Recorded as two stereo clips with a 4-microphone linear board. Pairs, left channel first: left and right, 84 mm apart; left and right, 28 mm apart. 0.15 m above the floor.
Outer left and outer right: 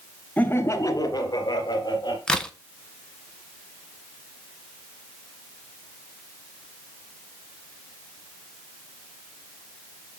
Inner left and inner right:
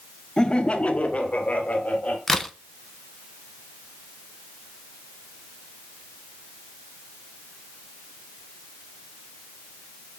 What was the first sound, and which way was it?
Laughter, 20° left (ahead or behind).